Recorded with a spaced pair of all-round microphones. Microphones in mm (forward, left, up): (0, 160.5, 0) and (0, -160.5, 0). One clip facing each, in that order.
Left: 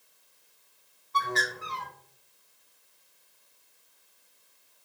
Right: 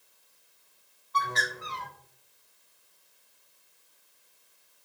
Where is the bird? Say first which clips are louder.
Left 3 dB; 35° left (ahead or behind), 1.2 m.